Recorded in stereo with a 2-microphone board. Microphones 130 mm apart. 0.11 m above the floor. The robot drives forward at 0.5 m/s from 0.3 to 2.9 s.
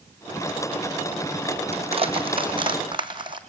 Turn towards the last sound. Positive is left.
turn(degrees=-35)  # may be behind; listen again after turning